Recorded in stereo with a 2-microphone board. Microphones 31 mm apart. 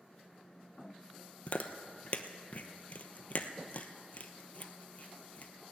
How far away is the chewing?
About 0.9 m.